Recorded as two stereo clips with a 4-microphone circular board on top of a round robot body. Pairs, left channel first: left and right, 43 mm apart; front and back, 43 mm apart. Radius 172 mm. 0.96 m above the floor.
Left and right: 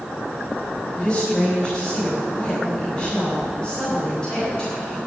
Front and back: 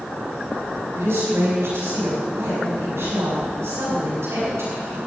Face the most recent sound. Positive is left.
turn(degrees=165)